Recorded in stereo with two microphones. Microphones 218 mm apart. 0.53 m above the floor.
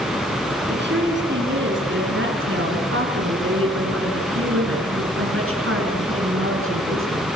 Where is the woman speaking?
55° right (ahead or behind), 7.5 m; by 7.3 s 70° right (ahead or behind), 8 m.